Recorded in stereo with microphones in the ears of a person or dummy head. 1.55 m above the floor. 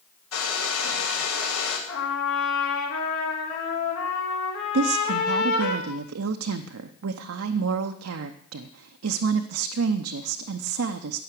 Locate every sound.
0.3 s a hair dryer: 85° left, 3.5 m
1.9 s a trumpet: 80° left, 3 m
4.7 s a woman speaking: 85° right, 0.7 m